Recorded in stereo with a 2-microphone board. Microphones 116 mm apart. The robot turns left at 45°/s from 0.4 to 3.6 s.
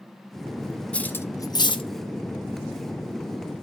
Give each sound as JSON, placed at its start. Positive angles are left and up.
{"t": 0.9, "sound": "cutlery clinking", "side_deg": 10, "distance_m": 0.6}